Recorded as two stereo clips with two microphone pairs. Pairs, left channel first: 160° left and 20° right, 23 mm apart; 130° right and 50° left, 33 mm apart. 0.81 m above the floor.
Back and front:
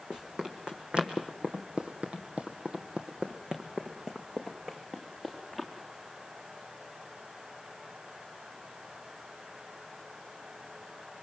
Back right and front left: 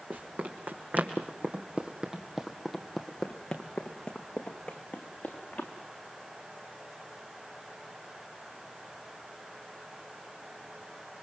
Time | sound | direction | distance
0.1 | running footsteps | 30° left | 3.5 m